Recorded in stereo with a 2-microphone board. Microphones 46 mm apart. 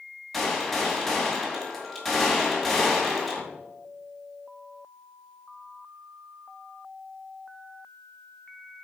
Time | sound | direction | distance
0.3 | a gunshot | centre (ahead or behind) | 2 m